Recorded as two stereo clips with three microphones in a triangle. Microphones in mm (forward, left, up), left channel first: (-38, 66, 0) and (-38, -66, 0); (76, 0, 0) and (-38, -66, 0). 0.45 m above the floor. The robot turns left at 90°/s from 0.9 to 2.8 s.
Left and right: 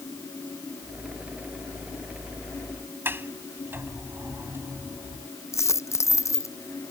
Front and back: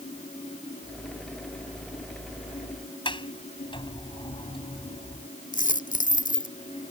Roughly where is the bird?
I don't hear a bird.